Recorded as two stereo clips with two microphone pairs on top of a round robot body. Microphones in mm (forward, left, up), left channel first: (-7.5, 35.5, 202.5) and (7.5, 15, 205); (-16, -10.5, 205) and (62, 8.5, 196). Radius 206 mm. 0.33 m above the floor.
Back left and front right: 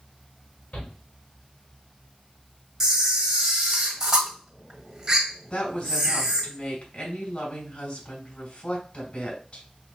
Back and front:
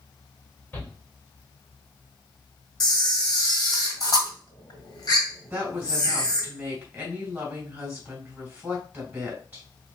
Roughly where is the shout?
Behind left.